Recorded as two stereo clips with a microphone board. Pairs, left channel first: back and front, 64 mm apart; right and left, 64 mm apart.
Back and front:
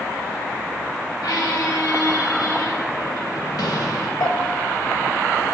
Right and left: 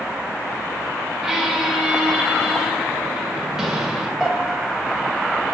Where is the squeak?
170° left, 1.7 m.